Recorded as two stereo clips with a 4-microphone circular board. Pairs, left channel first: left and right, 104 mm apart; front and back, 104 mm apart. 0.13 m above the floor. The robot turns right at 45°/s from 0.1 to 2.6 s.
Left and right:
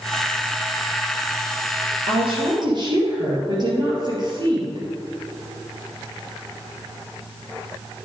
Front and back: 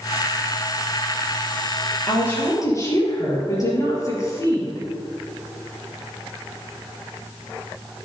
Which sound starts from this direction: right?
A woman speaking, at 2.1 s.